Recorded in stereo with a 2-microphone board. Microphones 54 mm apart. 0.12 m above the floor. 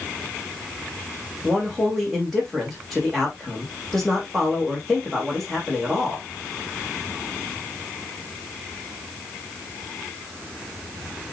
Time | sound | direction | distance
1.4 | a man speaking | centre (ahead or behind) | 6.5 m